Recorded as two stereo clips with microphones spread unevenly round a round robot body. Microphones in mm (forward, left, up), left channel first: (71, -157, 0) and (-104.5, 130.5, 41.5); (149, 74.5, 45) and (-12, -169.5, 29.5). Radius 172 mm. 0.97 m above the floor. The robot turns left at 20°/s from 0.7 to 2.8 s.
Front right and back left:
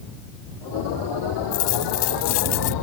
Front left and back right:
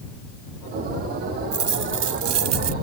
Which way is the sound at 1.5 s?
65° right.